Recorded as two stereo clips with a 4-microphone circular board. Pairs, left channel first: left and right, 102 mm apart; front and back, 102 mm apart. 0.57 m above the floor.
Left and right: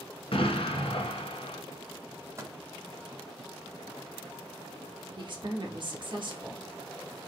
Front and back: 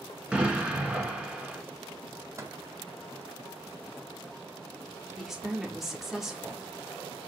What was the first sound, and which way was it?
An explosion, 100° left.